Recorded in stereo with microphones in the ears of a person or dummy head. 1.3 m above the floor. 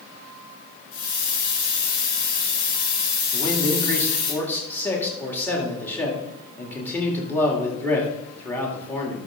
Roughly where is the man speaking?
Centre.